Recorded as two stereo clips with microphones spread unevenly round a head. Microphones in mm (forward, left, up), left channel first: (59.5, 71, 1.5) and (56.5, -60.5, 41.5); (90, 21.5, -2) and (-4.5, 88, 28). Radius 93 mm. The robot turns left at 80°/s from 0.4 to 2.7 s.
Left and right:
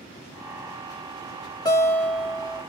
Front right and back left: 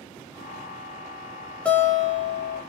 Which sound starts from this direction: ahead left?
A guitar, at 1.6 s.